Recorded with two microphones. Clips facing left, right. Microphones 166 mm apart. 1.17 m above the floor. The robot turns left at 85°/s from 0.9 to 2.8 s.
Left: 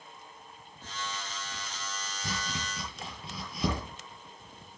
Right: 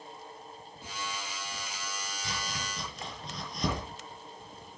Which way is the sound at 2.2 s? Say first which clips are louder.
Left 2 dB; 55° left (ahead or behind).